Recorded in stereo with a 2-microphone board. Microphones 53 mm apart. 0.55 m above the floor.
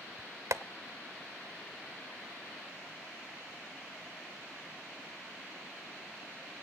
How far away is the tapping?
About 0.6 m.